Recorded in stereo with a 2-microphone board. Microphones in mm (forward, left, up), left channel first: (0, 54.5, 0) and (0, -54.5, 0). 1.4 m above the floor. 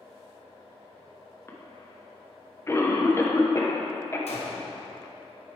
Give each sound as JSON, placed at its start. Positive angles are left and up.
{"t": 1.5, "sound": "a cough", "side_deg": 25, "distance_m": 1.0}
{"t": 4.3, "sound": "a gunshot", "side_deg": 75, "distance_m": 1.1}